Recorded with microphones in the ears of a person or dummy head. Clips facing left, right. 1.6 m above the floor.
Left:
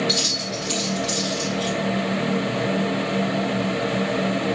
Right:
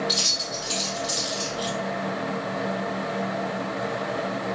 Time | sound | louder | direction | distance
0.1 | keys jangling | left 5 dB | 30° left (ahead or behind) | 1.6 m